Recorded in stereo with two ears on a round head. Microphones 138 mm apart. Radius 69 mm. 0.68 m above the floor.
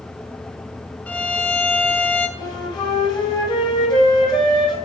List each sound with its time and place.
1.1 s a violin: 10° left (ahead or behind), 0.9 m
2.4 s a flute: 30° left (ahead or behind), 3 m